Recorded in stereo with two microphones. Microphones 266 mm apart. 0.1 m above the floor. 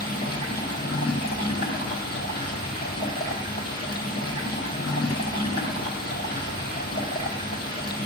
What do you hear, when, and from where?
0.0 s running water: 40° left (ahead or behind), 0.7 m